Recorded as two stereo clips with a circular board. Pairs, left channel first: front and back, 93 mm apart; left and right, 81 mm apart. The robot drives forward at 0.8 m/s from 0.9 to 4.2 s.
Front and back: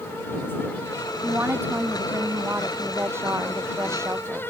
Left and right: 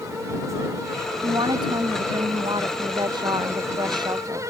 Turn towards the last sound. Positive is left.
turn(degrees=-120)